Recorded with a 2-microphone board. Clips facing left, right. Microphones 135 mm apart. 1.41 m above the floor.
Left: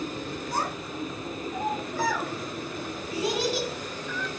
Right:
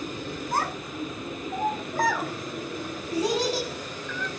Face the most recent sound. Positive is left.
turn(degrees=-40)  # may be behind; listen again after turning